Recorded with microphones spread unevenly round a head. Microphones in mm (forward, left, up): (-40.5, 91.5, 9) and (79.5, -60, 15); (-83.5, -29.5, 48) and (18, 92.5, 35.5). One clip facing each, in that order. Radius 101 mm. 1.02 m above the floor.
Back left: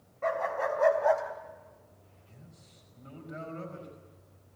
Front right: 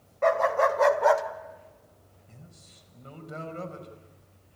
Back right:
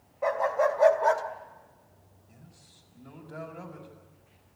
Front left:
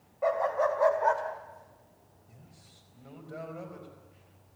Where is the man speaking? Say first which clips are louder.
Front right 3 dB, back right 2 dB; 20° right, 5 m.